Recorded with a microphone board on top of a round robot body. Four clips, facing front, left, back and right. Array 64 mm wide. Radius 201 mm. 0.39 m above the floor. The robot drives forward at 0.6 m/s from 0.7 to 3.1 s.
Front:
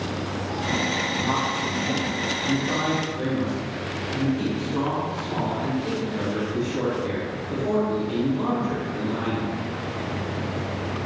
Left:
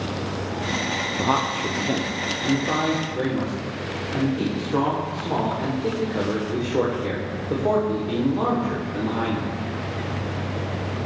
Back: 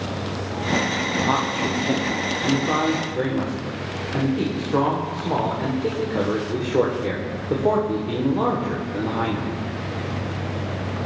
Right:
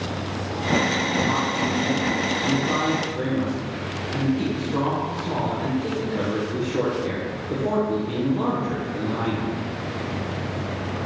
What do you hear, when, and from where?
1.2 s a man speaking: 115° left, 0.9 m; by 9.6 s 160° left, 1.6 m